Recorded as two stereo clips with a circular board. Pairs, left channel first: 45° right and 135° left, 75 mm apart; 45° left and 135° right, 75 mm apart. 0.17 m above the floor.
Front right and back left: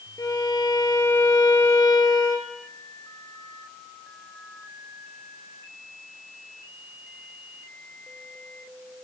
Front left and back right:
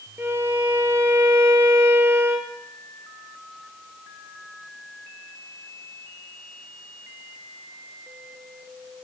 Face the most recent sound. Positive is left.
turn(degrees=-80)